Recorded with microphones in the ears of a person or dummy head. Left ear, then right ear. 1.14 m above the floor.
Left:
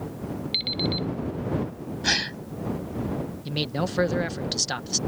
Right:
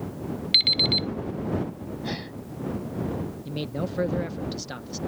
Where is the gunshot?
No gunshot in this recording.